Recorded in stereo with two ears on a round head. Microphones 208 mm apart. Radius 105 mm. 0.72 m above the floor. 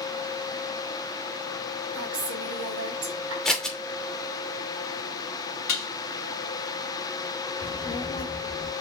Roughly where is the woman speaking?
Right.